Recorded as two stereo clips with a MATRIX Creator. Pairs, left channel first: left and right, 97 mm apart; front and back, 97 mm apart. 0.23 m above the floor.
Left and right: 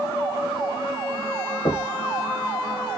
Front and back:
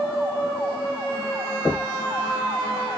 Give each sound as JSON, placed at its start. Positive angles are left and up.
{"t": 1.6, "sound": "knocking", "azimuth_deg": 60, "distance_m": 3.0}